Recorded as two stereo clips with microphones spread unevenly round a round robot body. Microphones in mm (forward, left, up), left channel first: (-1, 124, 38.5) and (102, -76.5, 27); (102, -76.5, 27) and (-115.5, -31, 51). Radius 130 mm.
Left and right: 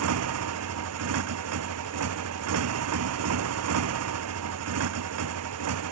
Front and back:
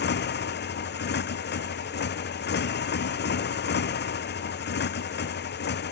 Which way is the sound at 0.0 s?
55° right.